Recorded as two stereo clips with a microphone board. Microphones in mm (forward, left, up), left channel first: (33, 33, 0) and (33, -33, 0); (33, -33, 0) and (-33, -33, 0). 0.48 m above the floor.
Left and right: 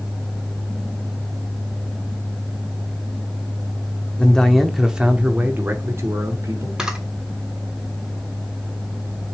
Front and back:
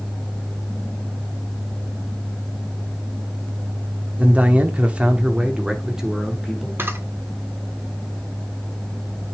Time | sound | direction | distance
4.2 | a man speaking | 145° left | 1.0 m
6.8 | a camera shutter | 165° right | 1.2 m